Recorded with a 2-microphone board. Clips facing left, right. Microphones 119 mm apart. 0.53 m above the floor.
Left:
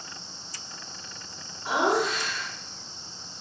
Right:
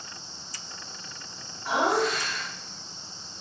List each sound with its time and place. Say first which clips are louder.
1.6 s laughter: even; 20° left (ahead or behind), 1.0 m